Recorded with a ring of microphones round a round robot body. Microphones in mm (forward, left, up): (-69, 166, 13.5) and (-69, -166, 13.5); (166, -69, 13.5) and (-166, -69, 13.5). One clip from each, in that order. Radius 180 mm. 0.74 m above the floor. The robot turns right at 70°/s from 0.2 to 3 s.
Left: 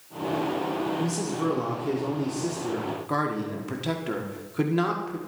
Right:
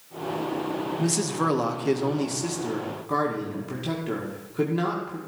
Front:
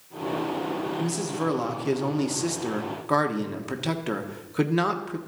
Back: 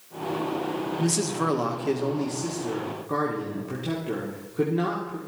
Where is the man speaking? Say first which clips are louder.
Right 3 dB, back 2 dB; 130° right, 1.5 m; by 5.2 s 10° left, 1.5 m.